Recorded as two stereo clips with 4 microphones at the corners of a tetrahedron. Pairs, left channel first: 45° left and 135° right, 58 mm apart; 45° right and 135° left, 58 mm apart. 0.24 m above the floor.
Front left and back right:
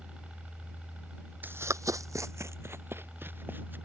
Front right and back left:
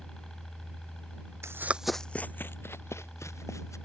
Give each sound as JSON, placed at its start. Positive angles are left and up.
{"t": 0.0, "sound": "a helicopter", "azimuth_deg": -110}
{"t": 1.4, "sound": "running footsteps", "azimuth_deg": 170}